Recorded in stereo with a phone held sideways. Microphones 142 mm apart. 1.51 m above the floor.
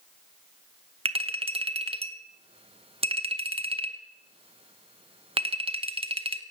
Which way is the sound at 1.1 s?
40° right (ahead or behind).